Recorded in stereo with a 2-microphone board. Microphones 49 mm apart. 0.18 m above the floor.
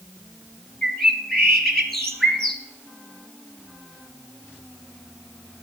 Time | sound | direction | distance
0.8 | a bird | 5° left (ahead or behind) | 3 m